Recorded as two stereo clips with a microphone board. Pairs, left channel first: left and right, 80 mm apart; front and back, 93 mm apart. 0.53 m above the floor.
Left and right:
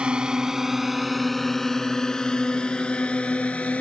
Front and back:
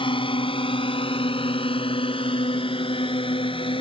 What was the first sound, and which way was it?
A drone, 15° right.